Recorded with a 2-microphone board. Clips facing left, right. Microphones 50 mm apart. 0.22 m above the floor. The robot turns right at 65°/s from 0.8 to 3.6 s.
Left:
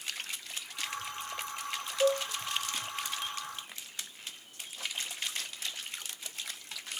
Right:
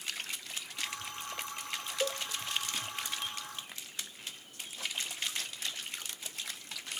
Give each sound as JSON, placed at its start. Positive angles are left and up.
{"t": 2.0, "sound": "a cowbell", "side_deg": 30, "distance_m": 1.1}